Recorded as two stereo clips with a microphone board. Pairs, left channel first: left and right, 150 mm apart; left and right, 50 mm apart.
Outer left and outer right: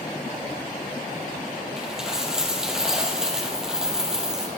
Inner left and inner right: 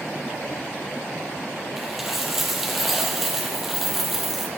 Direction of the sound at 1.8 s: 5° right (ahead or behind).